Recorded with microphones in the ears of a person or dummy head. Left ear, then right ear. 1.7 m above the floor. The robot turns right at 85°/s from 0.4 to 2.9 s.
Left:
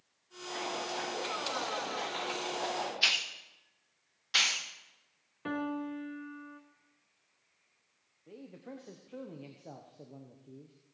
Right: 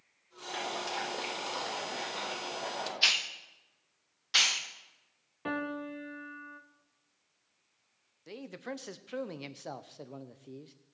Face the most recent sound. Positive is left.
turn(degrees=-55)  # may be behind; listen again after turning